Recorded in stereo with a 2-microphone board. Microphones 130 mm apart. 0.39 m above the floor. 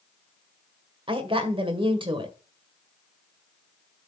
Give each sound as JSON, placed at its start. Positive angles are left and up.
{"t": 1.1, "sound": "a woman speaking", "side_deg": -40, "distance_m": 1.6}